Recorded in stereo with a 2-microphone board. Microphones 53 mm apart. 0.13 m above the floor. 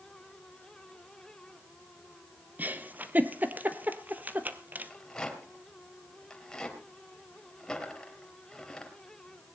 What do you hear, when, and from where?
2.6 s a giggle: 35° right (ahead or behind), 1.3 m
4.9 s a rattle: 10° left (ahead or behind), 3 m